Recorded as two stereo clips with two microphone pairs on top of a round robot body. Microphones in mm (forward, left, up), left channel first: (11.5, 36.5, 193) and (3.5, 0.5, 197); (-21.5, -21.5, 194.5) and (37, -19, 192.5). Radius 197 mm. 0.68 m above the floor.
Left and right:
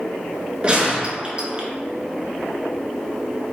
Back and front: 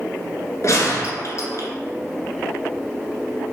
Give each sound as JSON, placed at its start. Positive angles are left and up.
{"t": 0.6, "sound": "a gunshot", "azimuth_deg": -170, "distance_m": 1.6}